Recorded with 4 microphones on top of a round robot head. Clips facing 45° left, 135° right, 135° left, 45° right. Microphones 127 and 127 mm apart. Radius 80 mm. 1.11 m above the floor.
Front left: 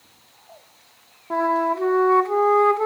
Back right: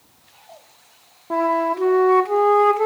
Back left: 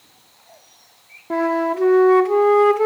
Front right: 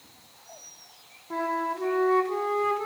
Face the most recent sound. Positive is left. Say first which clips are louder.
# back right 1 dB, back left 10 dB
turn(degrees=150)